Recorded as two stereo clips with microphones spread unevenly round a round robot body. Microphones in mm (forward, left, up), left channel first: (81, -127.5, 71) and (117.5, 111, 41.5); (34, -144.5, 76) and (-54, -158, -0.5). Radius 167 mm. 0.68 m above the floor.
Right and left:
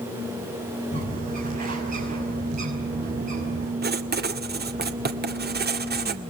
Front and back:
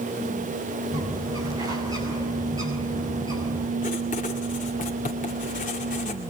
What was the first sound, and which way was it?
A bird, 145° left.